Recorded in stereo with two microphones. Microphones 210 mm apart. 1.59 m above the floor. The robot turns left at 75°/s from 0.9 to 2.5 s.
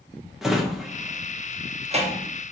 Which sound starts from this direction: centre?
A drawer, at 0.4 s.